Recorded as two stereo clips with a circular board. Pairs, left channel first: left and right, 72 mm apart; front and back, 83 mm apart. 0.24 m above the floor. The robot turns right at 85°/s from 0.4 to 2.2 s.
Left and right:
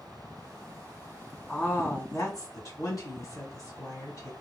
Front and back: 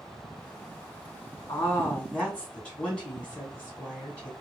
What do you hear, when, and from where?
1.5 s a woman speaking: 10° left, 2 m; by 4.3 s 70° left, 2 m